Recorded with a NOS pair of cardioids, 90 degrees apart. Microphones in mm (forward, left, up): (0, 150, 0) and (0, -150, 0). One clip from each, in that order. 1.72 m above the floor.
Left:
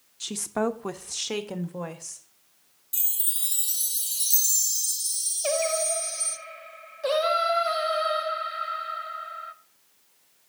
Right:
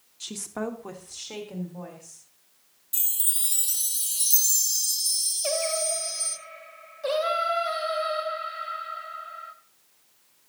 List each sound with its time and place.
0.2 s a woman speaking: 15° left, 1.1 m; by 2.3 s 80° left, 1.9 m
2.9 s a chime: straight ahead, 1.0 m
5.4 s singing: 20° left, 1.4 m